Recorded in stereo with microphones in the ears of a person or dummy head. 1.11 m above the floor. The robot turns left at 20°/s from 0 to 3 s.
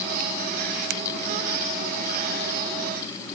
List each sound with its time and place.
Only background noise.